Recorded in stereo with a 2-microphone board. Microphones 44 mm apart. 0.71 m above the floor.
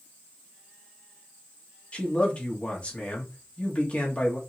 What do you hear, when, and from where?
1.9 s a man speaking: 30° left (ahead or behind), 1.2 m